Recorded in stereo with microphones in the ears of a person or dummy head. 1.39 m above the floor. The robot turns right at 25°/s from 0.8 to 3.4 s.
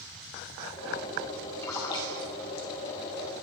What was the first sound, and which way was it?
A splash, 15° left (ahead or behind).